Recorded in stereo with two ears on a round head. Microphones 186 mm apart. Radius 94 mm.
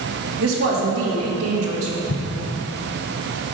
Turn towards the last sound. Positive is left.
turn(degrees=65)  # may be behind; listen again after turning